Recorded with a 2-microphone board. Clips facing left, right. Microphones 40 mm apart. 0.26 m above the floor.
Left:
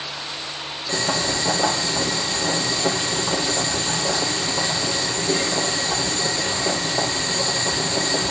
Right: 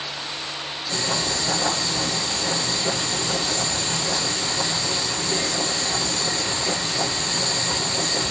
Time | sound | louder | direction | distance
0.9 | boiling | left 3 dB | 85° left | 4.5 m